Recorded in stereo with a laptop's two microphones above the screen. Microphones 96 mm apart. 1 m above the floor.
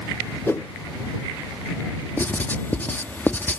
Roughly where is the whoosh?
Left.